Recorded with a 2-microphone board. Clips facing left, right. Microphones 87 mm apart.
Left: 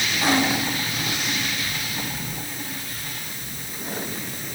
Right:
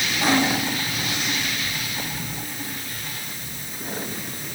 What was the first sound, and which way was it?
Only background noise.